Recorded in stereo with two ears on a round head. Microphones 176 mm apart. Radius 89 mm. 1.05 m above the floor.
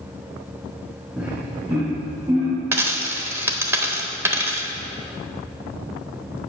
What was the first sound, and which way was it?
Laughter, 5° right (ahead or behind).